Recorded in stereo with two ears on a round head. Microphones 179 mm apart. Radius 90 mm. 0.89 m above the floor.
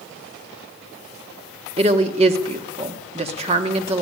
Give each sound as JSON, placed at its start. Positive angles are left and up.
{"t": 1.8, "sound": "a woman speaking", "side_deg": -30, "distance_m": 1.8}